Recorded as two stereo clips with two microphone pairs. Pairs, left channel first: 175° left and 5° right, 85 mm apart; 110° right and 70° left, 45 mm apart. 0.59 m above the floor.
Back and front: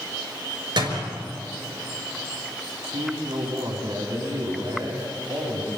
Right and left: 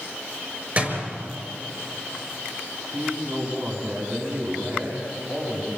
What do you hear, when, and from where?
0.8 s a door slam: 20° left, 5.5 m
2.9 s a man speaking: 25° left, 5.5 m